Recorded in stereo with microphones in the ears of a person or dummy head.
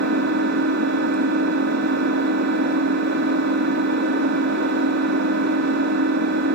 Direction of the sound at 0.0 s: 55° right (ahead or behind).